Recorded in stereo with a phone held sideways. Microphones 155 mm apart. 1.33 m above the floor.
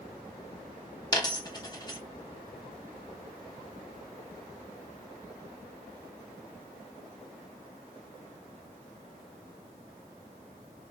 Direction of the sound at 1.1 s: 25° left (ahead or behind).